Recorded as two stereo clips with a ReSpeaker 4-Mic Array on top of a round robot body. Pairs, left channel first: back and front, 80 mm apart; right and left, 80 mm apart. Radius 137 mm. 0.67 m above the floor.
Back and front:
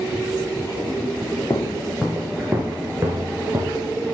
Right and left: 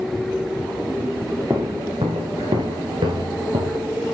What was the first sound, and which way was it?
Footsteps, 140° left.